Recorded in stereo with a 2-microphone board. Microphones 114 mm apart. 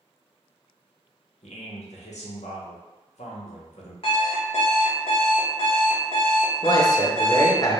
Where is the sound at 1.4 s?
75° left (ahead or behind), 0.7 m.